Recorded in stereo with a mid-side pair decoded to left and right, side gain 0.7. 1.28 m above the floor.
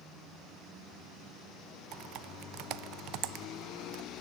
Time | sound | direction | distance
1.9 | typing on a keyboard | 60° right | 0.7 m